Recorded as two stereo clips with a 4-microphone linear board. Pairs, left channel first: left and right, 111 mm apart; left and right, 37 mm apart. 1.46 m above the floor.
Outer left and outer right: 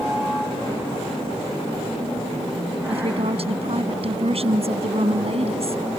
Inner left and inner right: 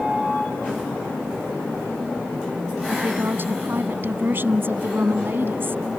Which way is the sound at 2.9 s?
65° right (ahead or behind).